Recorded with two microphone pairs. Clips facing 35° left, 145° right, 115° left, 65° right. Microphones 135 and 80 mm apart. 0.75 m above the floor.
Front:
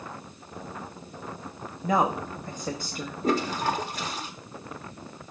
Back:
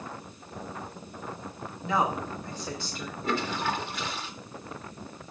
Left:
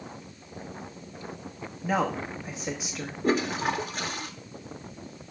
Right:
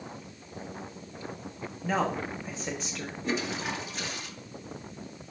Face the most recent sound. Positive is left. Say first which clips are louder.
# front 4 dB, left 6 dB
turn(degrees=80)